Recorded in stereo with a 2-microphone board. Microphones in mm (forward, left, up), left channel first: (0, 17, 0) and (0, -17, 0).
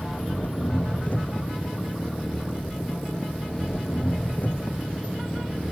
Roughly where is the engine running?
Left.